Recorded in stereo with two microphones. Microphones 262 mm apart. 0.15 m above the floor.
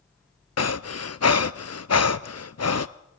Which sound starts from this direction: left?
Breathing, at 0.6 s.